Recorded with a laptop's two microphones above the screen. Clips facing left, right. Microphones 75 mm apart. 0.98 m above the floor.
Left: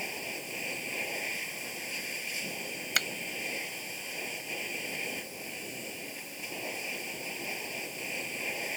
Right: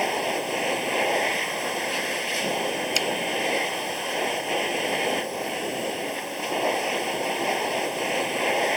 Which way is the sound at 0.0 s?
65° right (ahead or behind).